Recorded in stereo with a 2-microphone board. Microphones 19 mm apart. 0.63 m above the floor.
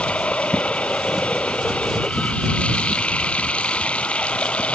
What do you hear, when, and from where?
0.0 s running water: 70° left (ahead or behind)